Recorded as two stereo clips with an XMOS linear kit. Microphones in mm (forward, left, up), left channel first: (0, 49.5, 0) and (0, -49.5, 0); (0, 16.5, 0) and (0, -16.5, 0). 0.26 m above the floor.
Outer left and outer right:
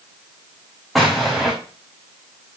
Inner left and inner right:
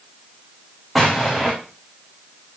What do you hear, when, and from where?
0.9 s an explosion: centre (ahead or behind), 4 m